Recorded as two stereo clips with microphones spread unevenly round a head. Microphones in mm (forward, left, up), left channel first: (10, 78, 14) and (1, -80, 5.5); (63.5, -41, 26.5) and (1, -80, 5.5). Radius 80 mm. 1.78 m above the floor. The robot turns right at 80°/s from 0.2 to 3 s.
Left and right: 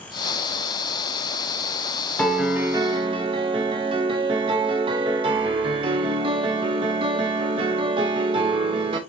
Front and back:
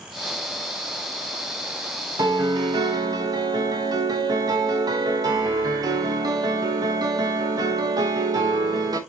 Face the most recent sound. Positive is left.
turn(degrees=-135)